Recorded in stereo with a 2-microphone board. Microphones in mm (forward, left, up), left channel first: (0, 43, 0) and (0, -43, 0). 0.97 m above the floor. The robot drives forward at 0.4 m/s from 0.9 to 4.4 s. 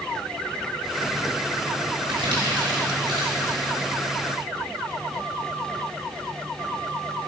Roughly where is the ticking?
I don't hear ticking.